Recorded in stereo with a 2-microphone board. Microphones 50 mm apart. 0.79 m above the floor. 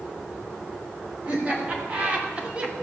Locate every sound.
1.2 s laughter: 25° right (ahead or behind), 4 m; by 2.7 s 20° right (ahead or behind), 1.8 m